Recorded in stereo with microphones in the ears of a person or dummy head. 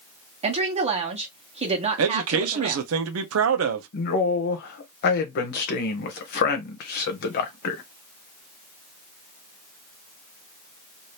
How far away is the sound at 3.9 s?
About 1.0 m.